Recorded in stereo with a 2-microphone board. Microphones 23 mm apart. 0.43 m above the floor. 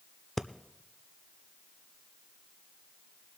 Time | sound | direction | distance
0.4 | breathing | 10° left (ahead or behind) | 0.5 m